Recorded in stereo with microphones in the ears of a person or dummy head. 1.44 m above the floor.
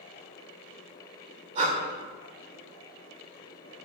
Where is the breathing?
45° right (ahead or behind), 2 m.